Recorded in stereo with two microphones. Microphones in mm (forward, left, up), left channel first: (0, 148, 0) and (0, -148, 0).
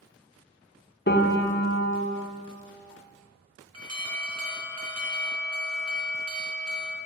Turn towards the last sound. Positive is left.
turn(degrees=-60)  # may be behind; listen again after turning